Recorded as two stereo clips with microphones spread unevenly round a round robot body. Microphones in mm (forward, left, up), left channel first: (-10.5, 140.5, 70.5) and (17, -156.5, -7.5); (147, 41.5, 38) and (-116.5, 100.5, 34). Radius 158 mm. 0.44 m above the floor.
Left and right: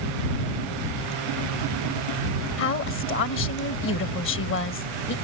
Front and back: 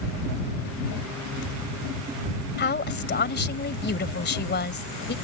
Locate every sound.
2.6 s a woman speaking: 40° left